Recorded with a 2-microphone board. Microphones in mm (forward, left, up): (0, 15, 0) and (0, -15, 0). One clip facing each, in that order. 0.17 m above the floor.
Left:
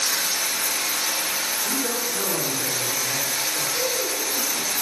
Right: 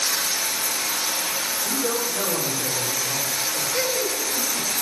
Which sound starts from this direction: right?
Laughter, at 3.7 s.